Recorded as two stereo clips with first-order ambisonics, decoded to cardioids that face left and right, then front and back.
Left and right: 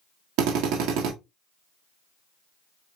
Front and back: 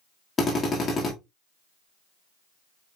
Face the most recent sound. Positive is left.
turn(degrees=-70)